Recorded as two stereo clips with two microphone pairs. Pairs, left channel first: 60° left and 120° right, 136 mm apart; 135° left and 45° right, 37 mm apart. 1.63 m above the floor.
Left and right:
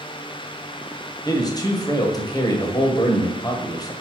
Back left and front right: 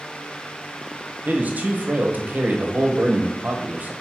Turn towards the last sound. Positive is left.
turn(degrees=0)